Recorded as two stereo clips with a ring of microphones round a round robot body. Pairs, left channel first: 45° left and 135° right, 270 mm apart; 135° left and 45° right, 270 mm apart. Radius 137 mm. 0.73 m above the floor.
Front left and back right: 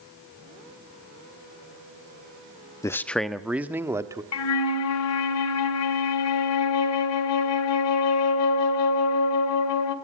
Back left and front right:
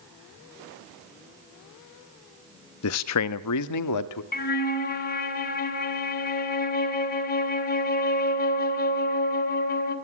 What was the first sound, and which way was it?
A man speaking, 120° left.